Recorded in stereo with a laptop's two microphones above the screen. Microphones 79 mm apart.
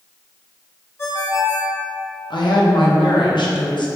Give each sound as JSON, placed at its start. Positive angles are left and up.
{"t": 1.0, "sound": "a ringtone", "side_deg": 30, "distance_m": 0.9}
{"t": 2.3, "sound": "a woman speaking", "side_deg": 75, "distance_m": 0.7}